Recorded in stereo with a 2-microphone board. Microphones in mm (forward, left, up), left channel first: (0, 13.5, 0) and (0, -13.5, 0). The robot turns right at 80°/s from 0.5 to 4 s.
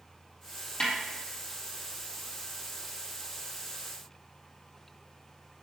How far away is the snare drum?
About 3.5 m.